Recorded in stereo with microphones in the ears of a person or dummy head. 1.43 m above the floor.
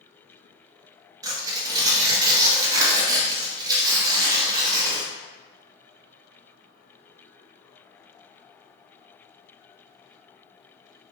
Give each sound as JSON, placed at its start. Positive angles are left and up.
{"t": 1.2, "sound": "tearing paper", "side_deg": -20, "distance_m": 0.9}